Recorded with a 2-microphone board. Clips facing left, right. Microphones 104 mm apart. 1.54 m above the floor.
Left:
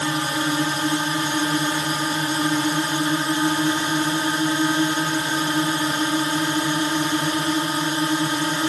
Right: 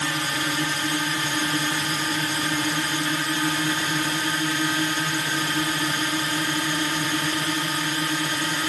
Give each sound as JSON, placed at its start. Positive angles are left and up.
{"t": 0.0, "sound": "a drone", "side_deg": 25}